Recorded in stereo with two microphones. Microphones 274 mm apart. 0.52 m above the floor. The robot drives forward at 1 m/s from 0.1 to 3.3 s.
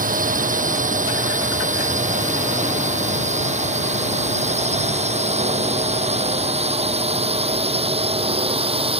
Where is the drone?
30° right (ahead or behind); by 9.0 s 20° right (ahead or behind).